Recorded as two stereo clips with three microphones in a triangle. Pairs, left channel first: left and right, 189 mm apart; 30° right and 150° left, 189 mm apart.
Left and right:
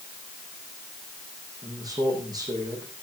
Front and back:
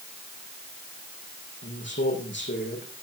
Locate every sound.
1.6 s a man speaking: 20° right, 6 m